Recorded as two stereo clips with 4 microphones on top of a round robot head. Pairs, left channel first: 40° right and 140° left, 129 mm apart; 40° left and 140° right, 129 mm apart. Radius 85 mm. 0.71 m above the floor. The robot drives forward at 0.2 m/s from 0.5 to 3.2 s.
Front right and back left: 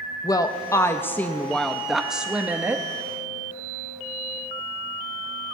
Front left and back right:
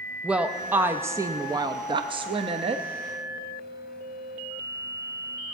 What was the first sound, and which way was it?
A woman speaking, 70° right.